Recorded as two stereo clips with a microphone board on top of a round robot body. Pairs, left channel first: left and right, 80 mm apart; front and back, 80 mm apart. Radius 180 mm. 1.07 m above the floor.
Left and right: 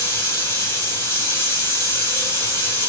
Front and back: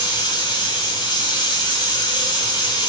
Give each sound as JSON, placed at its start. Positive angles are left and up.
{"t": 0.0, "sound": "running water", "azimuth_deg": 30, "distance_m": 0.7}